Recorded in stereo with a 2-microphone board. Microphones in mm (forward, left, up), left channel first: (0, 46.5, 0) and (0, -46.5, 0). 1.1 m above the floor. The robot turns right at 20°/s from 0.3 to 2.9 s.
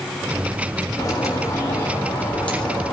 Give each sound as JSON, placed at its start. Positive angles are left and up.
{"t": 1.0, "sound": "a bird", "azimuth_deg": 135, "distance_m": 3.5}